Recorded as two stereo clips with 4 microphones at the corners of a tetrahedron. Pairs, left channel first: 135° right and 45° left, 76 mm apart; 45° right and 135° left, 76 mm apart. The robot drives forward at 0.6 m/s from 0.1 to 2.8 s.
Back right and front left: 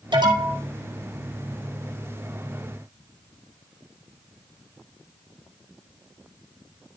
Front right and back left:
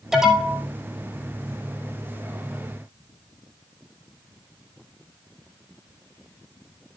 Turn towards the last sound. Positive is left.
turn(degrees=80)